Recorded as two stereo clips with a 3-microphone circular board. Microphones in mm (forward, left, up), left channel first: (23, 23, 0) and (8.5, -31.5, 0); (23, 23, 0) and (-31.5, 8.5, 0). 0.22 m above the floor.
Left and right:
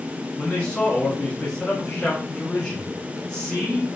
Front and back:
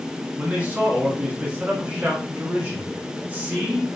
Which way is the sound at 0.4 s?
135° left.